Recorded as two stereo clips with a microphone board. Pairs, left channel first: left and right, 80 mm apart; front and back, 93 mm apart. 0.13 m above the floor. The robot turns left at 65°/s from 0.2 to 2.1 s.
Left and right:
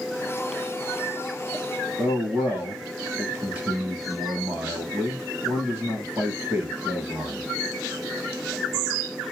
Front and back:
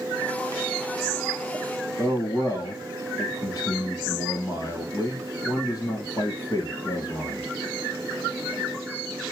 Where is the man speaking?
30° right, 2.0 m; by 7.5 s 40° right, 2.0 m.